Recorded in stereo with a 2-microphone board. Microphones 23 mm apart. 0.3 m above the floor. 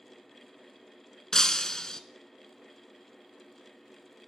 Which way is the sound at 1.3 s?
30° left (ahead or behind).